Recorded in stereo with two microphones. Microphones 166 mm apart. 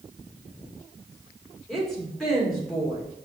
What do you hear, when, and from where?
1.7 s a woman speaking: centre (ahead or behind), 1.9 m